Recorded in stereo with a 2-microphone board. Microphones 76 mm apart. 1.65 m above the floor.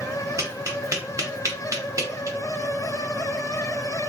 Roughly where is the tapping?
Right.